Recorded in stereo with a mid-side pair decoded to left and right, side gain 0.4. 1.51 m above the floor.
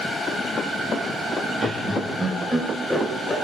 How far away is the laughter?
About 1.3 m.